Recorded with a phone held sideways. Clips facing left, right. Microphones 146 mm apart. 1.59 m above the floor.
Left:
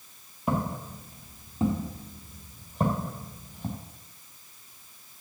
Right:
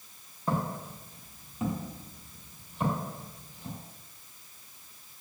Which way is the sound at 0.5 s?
15° left (ahead or behind).